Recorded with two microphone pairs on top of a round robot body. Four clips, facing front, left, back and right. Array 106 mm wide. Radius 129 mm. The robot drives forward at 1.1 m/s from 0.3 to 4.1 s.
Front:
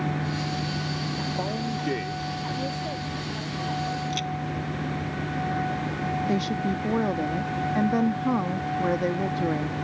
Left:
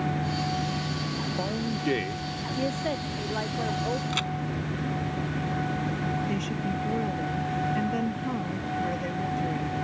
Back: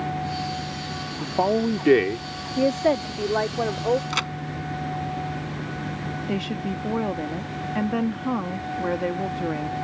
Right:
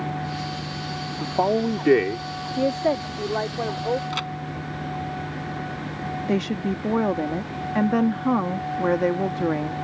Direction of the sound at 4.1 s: 165° right.